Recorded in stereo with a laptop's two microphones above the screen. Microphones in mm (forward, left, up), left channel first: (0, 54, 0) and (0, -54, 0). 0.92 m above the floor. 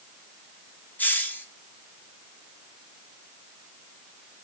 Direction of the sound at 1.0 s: 15° left (ahead or behind).